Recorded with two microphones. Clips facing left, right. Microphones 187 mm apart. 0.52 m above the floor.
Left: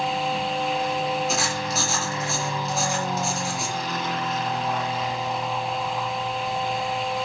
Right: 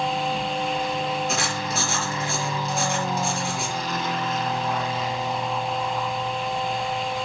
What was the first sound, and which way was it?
Writing, centre (ahead or behind).